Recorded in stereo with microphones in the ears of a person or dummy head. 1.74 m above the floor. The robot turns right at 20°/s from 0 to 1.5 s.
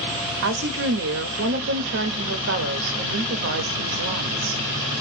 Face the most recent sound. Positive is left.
turn(degrees=-60)  # may be behind; listen again after turning